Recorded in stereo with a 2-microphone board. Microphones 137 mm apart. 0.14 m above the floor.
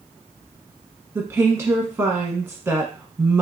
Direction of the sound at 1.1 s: 20° right (ahead or behind).